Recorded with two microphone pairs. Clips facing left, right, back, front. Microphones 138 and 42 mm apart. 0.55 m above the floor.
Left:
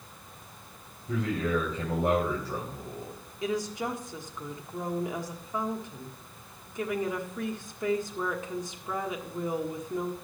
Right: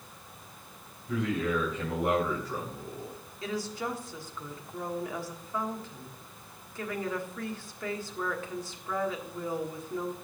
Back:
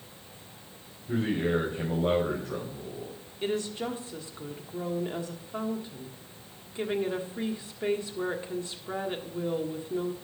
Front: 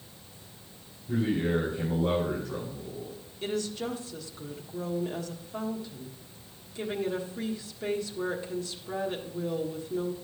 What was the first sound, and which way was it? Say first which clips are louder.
A man speaking: left 1 dB, even; 140° left.